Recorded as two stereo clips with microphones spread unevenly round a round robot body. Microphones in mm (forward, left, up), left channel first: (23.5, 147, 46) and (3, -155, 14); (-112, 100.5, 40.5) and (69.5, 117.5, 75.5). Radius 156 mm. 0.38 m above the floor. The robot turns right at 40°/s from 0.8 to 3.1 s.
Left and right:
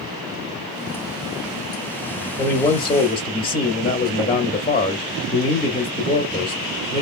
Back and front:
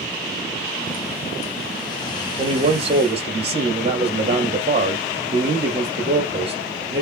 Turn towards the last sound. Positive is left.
turn(degrees=30)